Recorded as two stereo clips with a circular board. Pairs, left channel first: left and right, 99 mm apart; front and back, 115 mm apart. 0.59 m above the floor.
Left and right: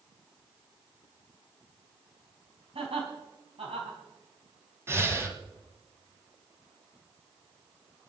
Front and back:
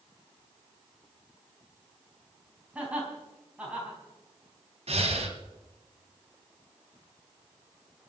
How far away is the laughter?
About 5 m.